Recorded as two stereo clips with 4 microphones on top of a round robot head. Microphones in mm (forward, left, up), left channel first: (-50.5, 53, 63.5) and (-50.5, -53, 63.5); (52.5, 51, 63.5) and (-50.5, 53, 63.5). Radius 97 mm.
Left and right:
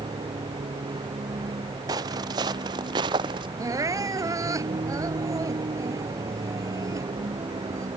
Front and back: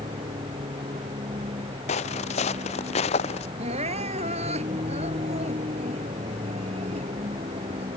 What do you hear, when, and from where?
0.0 s a vehicle: 135° right; by 8.0 s 140° right
1.9 s footsteps: 30° right; by 3.5 s 35° right
3.6 s crying: 150° right